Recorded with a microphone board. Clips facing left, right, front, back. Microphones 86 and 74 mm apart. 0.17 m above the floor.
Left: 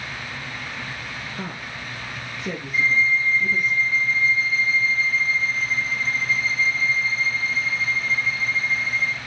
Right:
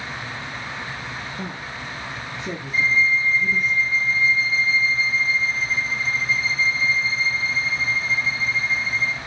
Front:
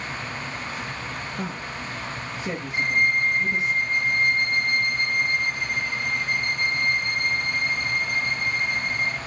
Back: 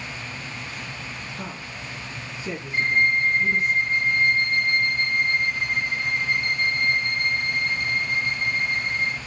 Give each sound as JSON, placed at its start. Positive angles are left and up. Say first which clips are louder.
{"t": 1.4, "sound": "a woman speaking", "louder": "right 1 dB, front 4 dB", "azimuth_deg": 60, "distance_m": 1.9}
{"t": 2.7, "sound": "a violin", "louder": "right 1 dB, back 2 dB", "azimuth_deg": 125, "distance_m": 3.5}